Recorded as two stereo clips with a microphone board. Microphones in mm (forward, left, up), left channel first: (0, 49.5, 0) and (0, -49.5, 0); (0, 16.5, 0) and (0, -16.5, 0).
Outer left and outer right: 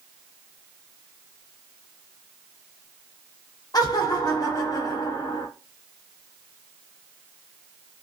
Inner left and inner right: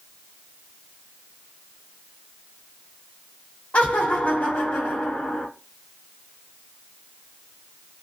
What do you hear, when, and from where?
3.7 s laughter: 40° left (ahead or behind), 0.5 m